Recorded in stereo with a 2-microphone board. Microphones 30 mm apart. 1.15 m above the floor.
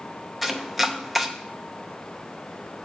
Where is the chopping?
5° right (ahead or behind), 0.6 m.